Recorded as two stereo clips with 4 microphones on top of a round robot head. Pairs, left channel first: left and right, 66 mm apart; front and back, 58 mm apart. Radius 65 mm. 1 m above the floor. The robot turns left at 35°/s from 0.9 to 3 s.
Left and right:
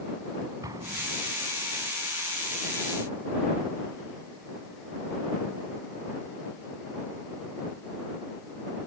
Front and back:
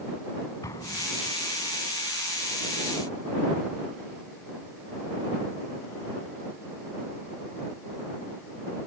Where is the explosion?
45° right; by 1.4 s 60° right.